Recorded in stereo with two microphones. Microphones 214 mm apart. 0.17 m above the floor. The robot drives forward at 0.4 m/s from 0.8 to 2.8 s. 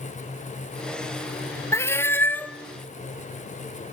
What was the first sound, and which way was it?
A cat meowing, 10° left (ahead or behind).